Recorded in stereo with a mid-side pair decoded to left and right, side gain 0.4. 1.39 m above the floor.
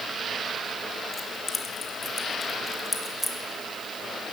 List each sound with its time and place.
1.1 s keys jangling: 45° left, 1.7 m; by 3.4 s 10° left, 2.5 m